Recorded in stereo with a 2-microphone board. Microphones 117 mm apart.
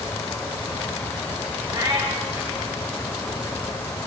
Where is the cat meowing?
30° right (ahead or behind), 5.5 m.